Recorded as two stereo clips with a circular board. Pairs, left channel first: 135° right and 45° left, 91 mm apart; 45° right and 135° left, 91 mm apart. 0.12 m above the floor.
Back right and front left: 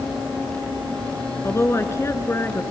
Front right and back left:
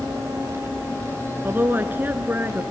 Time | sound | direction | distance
1.4 | a woman speaking | 175° right | 1.9 m